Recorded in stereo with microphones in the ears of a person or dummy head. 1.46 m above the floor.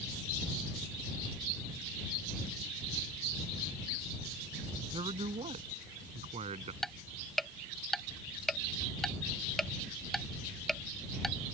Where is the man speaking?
35° right (ahead or behind); by 6.7 s 40° right (ahead or behind).